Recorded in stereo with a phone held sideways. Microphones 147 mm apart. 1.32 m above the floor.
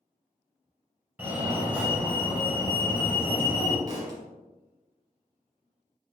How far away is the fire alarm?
About 1.0 m.